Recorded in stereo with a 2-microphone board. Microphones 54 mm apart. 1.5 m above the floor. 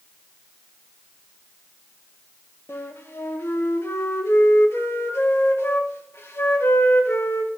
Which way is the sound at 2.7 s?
45° left (ahead or behind).